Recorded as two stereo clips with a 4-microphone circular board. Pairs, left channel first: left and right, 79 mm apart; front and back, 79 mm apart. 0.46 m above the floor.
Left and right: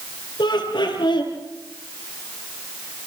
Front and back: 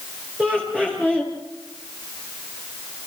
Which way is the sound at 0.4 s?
100° left.